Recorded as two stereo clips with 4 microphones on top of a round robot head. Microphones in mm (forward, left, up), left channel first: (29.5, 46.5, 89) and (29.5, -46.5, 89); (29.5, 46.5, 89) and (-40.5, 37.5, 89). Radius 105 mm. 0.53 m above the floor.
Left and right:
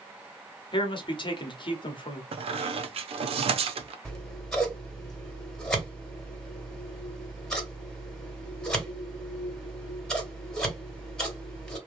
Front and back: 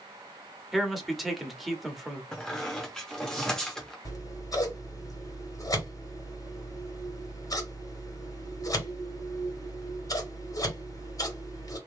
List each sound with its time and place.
0.7 s a man speaking: 100° left, 1.1 m
2.3 s a squeak: 75° right, 0.6 m
4.0 s scissors: 10° left, 1.8 m